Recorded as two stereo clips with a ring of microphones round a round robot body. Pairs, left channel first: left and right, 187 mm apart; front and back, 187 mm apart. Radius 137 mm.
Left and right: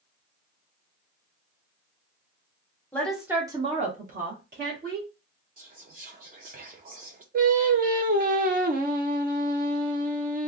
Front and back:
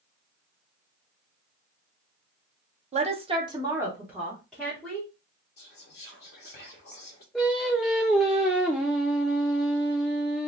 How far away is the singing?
About 0.6 m.